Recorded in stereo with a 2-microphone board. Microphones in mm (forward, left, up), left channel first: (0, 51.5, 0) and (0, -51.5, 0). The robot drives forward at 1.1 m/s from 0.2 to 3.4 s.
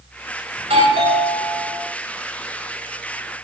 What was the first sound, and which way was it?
A doorbell, 70° right (ahead or behind).